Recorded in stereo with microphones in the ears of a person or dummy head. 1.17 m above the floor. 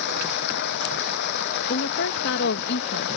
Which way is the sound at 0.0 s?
60° left (ahead or behind).